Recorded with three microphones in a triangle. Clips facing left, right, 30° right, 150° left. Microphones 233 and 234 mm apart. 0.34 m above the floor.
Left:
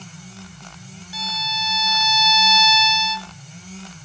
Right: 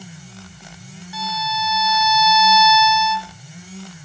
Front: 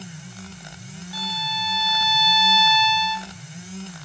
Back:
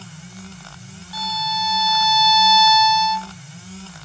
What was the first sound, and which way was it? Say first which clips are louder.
A violin: right 6 dB, back 5 dB; 30° left.